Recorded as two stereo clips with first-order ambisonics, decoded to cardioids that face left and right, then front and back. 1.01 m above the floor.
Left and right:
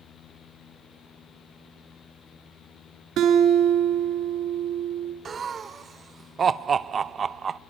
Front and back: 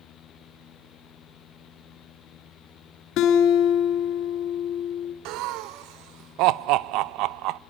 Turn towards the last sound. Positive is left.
turn(degrees=-155)